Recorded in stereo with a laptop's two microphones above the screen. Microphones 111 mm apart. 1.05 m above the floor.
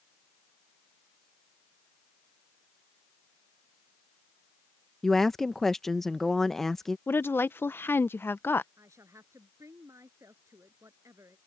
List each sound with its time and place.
5.0 s a woman speaking: 5° left (ahead or behind)
7.1 s a woman speaking: 20° left (ahead or behind)
8.8 s a woman speaking: 25° right (ahead or behind)